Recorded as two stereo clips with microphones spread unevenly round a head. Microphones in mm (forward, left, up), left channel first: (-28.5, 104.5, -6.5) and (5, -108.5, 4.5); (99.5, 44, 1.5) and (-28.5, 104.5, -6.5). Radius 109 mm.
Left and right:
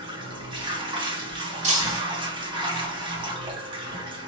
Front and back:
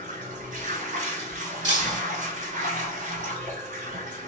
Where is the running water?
150° right, 1.1 m.